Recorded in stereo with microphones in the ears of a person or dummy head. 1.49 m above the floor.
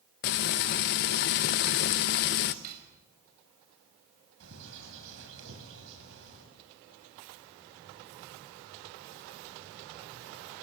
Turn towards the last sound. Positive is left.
turn(degrees=-60)  # may be behind; listen again after turning